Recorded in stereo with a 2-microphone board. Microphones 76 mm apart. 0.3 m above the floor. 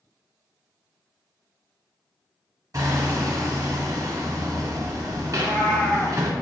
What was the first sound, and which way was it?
Hammering, 45° right (ahead or behind).